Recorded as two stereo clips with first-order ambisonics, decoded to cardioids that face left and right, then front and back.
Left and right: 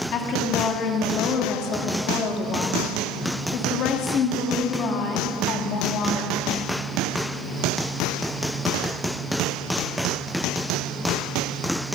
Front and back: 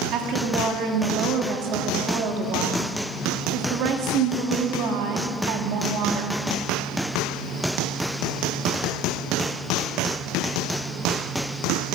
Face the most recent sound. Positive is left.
turn(degrees=140)